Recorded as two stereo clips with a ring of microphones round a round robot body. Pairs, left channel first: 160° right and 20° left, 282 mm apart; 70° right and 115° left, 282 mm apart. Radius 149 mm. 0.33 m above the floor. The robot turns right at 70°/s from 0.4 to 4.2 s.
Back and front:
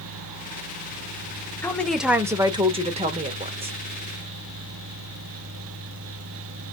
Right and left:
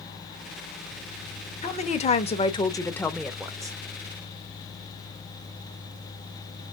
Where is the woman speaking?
90° right, 0.8 m; by 3.7 s 60° left, 0.8 m.